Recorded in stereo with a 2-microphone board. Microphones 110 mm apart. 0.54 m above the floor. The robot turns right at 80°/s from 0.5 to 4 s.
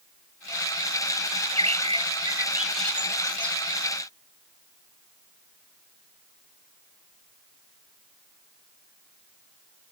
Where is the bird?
115° right; by 3.6 s 70° left.